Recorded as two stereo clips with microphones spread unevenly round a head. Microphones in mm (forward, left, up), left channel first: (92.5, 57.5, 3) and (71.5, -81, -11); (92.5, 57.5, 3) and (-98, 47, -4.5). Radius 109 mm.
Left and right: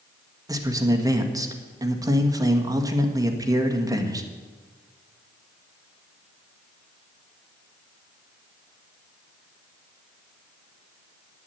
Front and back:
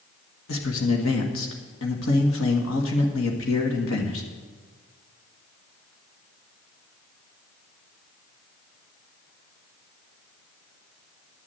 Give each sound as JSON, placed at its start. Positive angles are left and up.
{"t": 0.5, "sound": "a man speaking", "azimuth_deg": -35, "distance_m": 1.7}